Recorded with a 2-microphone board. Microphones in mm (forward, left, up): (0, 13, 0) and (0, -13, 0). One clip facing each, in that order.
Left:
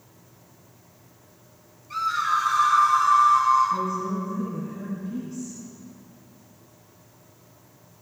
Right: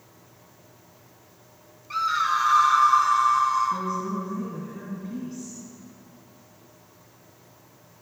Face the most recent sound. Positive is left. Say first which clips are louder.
# left 2 dB
turn(degrees=-35)  # may be behind; listen again after turning